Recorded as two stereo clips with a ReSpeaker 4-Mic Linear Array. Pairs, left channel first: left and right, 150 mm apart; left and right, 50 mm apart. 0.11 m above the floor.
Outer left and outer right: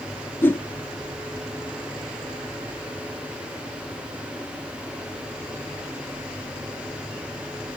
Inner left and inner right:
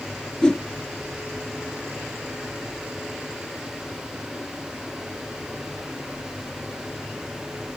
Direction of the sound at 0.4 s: 15° left (ahead or behind).